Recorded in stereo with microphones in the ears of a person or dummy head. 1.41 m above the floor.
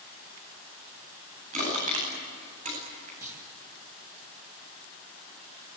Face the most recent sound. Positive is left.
turn(degrees=-15)  # may be behind; listen again after turning